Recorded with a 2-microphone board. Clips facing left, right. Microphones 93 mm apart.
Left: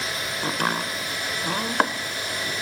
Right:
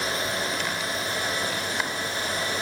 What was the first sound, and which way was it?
Chopping, 55° left (ahead or behind).